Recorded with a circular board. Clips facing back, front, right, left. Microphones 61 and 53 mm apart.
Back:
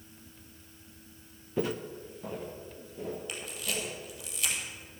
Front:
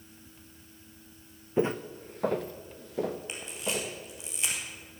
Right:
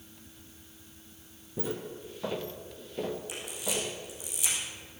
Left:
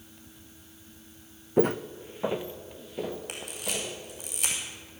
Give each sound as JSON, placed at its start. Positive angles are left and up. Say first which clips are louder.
{"t": 1.6, "sound": "footsteps", "louder": "front 4 dB, left 11 dB", "azimuth_deg": 70, "distance_m": 0.7}
{"t": 3.3, "sound": "a camera shutter", "louder": "front 3 dB, even", "azimuth_deg": 65, "distance_m": 3.0}